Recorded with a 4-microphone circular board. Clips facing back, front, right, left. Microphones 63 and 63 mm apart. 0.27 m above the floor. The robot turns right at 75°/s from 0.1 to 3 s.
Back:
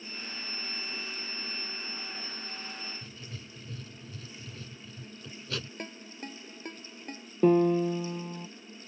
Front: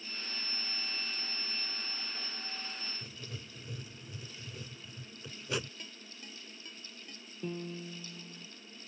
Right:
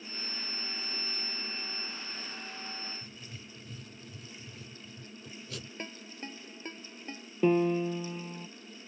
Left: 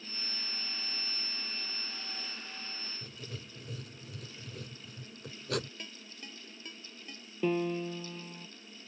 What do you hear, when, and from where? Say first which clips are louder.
3.0 s writing: back 1 dB, left 2 dB; 70° left
5.8 s a ringtone: back 9 dB, right 5 dB; 145° right
7.4 s a piano: back 18 dB, right 5 dB; 160° right